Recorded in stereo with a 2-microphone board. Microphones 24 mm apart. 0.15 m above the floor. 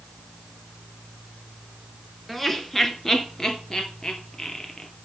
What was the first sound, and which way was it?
Laughter, 10° left (ahead or behind).